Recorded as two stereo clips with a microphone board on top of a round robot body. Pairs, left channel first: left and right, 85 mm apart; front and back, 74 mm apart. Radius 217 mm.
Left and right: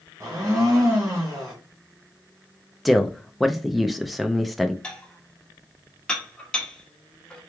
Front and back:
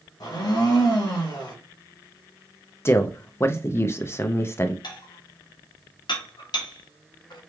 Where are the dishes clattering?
10° left, 1.0 m.